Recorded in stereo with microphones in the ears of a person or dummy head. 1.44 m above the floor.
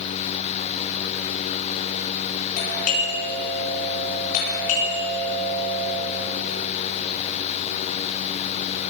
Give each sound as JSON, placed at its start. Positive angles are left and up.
{"t": 2.6, "sound": "a doorbell", "side_deg": 50, "distance_m": 9.5}